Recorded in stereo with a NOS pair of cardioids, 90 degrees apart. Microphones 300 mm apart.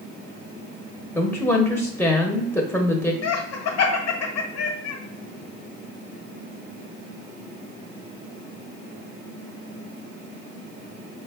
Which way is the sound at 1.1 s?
5° left.